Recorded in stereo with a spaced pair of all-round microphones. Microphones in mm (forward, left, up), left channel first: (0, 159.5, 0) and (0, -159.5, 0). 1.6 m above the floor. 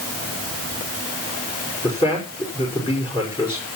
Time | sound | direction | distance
1.8 | a man speaking | 15° left (ahead or behind) | 5.5 m